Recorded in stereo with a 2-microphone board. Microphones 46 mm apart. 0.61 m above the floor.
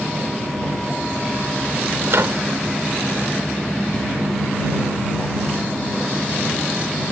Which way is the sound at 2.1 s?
65° right (ahead or behind).